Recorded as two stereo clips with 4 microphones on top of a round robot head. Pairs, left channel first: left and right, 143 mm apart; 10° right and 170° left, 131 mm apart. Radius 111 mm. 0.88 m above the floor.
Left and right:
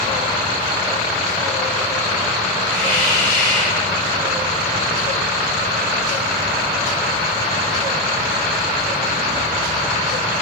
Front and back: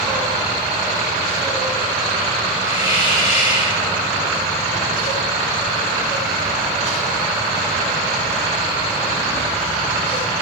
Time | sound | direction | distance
2.6 | a hiss | 15° left | 9.5 m